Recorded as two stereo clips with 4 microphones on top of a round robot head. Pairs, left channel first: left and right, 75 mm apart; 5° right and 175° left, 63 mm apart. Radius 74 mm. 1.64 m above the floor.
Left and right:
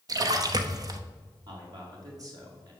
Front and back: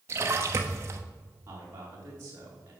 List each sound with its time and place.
0.1 s a splash: 130° right, 1.0 m
1.5 s a man speaking: 130° right, 3.5 m